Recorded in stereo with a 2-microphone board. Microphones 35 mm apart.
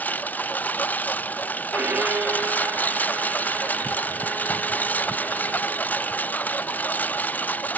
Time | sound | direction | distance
0.0 | a lawn mower | 60° left (ahead or behind) | ?
1.7 | a violin | 70° right (ahead or behind) | ?